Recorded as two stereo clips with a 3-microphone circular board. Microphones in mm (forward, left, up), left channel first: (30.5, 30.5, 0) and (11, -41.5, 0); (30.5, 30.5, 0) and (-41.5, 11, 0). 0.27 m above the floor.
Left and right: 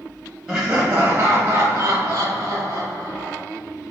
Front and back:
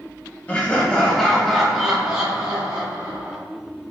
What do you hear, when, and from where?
0.5 s laughter: 30° right, 1.1 m; by 3.4 s 130° right, 1.5 m